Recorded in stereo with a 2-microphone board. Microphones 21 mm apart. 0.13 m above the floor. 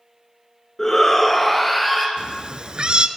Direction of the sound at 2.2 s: 45° right (ahead or behind).